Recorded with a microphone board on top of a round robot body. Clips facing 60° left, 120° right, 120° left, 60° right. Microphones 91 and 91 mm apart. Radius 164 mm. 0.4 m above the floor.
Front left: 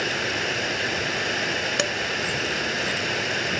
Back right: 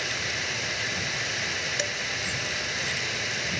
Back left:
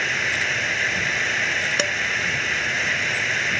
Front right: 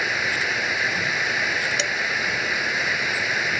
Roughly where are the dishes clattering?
Left.